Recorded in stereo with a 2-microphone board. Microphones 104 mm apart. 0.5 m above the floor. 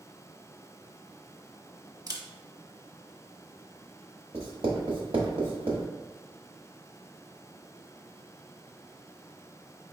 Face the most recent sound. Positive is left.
turn(degrees=-80)